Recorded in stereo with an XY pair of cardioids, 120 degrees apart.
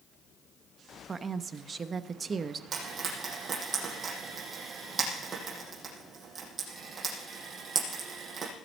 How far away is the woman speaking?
About 0.9 m.